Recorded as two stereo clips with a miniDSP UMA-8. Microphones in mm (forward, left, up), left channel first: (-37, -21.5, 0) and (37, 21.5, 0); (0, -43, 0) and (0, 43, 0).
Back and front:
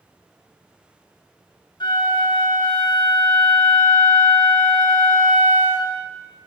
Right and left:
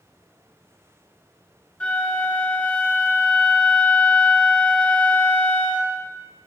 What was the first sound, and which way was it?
A flute, 165° right.